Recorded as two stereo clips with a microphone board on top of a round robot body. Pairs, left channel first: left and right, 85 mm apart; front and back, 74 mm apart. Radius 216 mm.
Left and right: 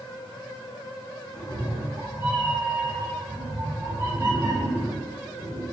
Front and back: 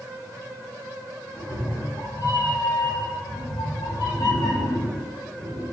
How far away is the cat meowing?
About 1.3 m.